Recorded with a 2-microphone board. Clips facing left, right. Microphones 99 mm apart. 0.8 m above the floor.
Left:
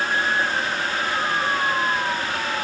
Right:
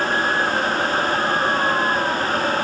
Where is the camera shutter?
I don't hear a camera shutter.